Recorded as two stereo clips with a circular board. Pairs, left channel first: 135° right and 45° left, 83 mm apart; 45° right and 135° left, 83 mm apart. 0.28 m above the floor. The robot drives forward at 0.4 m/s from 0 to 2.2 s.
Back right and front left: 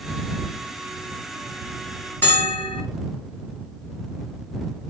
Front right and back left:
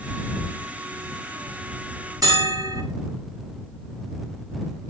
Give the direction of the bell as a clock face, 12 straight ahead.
7 o'clock.